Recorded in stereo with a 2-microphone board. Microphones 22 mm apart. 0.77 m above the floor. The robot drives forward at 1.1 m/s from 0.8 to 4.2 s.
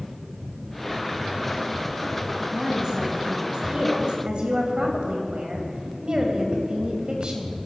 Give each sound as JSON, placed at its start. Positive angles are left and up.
{"t": 2.5, "sound": "a woman speaking", "side_deg": -35, "distance_m": 5.0}